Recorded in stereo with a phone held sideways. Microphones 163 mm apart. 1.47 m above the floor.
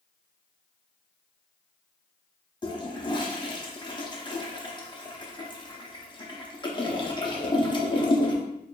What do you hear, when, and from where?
2.6 s a toilet flushing: 25° left (ahead or behind), 0.6 m